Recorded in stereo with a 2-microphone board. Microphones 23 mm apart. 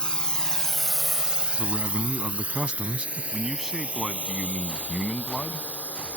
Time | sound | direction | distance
0.0 | a drone | 35° left (ahead or behind) | ?
1.6 | a man speaking | 55° right (ahead or behind) | ?
3.3 | a man speaking | 10° right (ahead or behind) | ?